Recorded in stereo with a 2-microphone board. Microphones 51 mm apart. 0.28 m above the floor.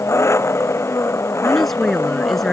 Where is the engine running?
55° left (ahead or behind).